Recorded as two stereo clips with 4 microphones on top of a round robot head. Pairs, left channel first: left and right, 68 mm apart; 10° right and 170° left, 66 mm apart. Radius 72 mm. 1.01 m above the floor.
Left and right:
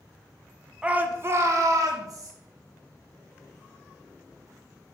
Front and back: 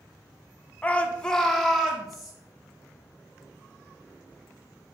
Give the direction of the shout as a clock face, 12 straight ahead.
1 o'clock.